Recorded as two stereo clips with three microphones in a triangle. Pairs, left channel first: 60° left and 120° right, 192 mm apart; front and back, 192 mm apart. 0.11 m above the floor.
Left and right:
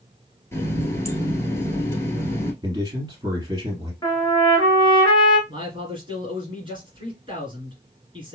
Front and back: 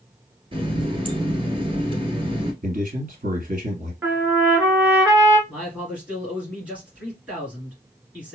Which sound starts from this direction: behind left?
A running tap, at 0.5 s.